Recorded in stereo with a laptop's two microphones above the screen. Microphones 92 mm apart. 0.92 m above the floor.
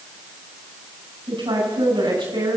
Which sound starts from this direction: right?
A woman speaking, at 1.3 s.